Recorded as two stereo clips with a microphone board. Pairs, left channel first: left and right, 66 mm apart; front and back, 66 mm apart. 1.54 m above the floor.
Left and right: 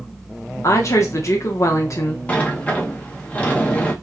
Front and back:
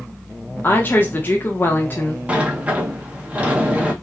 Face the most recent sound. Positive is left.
turn(degrees=135)